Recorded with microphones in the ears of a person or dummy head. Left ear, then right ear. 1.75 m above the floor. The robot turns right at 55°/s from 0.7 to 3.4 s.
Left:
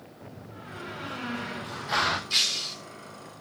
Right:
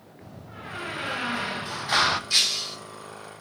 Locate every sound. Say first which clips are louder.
0.2 s a door slam: right 4 dB; 105° right, 1.2 m; by 2.2 s 20° right, 1.2 m
2.3 s breaking glass: right 3 dB; 10° right (ahead or behind), 1.4 m; by 2.8 s centre (ahead or behind), 1.4 m